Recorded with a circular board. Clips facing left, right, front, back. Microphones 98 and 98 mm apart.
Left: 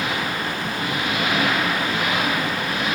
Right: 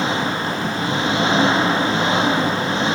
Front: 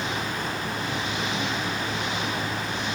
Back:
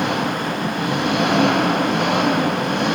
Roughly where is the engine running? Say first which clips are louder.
Right 4 dB, back 8 dB; behind right.